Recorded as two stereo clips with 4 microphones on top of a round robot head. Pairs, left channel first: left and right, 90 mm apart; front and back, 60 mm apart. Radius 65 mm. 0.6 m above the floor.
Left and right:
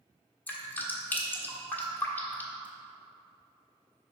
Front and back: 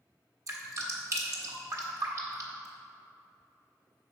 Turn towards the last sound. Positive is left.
turn(degrees=160)